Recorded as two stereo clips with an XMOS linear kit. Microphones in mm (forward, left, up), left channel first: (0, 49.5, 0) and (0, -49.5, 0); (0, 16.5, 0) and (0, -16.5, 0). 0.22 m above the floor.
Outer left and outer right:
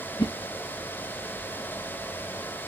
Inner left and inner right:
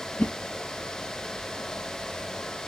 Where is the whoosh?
60° left (ahead or behind), 0.5 m.